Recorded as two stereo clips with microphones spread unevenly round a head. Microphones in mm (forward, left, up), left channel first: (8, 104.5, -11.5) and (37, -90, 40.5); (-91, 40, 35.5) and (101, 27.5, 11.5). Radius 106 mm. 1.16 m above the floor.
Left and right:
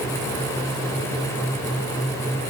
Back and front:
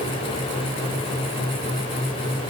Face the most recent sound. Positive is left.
No sound to turn to.